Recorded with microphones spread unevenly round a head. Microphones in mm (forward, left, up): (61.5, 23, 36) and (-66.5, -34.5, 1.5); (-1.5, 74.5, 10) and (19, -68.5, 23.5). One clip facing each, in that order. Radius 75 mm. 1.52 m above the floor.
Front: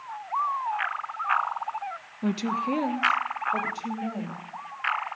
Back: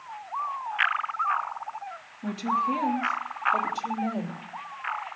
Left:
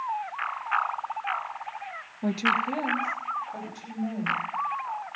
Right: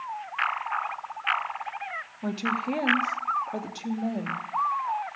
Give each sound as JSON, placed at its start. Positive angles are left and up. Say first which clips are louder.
{"t": 2.2, "sound": "a woman speaking", "louder": "front 1 dB, left 2 dB", "azimuth_deg": 25, "distance_m": 1.4}